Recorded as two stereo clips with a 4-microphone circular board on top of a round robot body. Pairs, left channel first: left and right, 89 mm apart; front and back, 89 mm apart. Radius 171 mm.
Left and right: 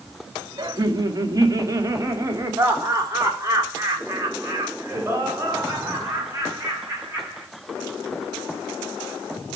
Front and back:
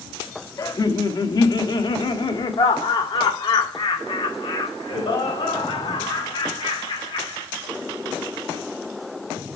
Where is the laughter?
45° right, 1.5 m; by 7.5 s 20° right, 5 m.